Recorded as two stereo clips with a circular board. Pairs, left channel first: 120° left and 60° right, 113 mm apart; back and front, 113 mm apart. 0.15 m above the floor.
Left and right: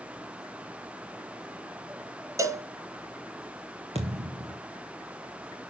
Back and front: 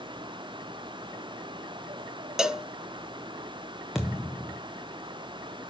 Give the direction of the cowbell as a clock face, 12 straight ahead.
3 o'clock.